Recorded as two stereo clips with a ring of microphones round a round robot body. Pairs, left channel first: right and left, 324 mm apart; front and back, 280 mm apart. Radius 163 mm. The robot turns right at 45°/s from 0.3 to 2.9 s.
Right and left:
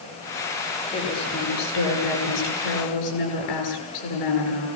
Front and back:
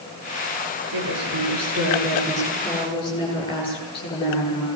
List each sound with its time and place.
0.9 s a woman speaking: 165° right, 10 m; by 4.7 s 75° right, 10 m